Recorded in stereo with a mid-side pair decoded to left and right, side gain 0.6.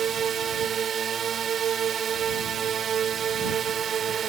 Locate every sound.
0.0 s a drone: 45° right